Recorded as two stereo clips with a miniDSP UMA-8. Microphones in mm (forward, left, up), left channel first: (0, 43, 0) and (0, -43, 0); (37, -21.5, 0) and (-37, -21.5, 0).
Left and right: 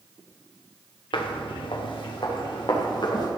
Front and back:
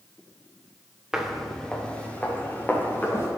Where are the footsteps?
95° left, 1.8 m; by 3.3 s 60° left, 4 m.